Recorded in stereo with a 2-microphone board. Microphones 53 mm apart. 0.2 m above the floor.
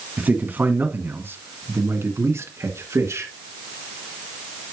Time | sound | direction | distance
0.2 | a man speaking | 30° right (ahead or behind) | 1.7 m